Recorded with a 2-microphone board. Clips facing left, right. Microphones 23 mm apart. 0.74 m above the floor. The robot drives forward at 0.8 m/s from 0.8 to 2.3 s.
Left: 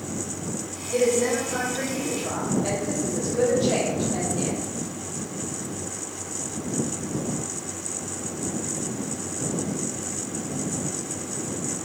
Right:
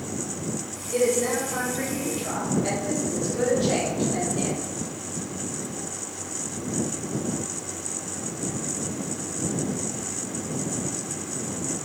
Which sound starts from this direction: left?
A woman speaking, at 0.9 s.